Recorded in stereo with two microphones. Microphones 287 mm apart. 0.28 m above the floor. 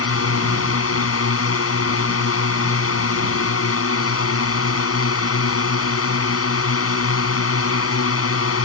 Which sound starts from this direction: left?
A drone, at 0.0 s.